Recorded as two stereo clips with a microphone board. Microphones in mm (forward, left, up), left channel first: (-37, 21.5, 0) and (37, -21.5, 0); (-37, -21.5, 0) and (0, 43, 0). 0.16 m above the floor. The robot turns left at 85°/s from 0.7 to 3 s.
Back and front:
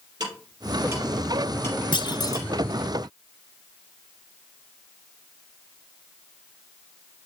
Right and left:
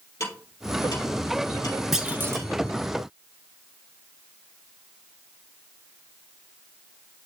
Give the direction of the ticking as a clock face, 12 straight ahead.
2 o'clock.